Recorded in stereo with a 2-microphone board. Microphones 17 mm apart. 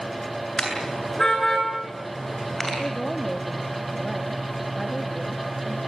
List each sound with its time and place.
0.6 s a car horn: 30° left (ahead or behind), 8 m; by 2.7 s 15° left (ahead or behind), 8.5 m
2.8 s a woman speaking: 5° left (ahead or behind), 2 m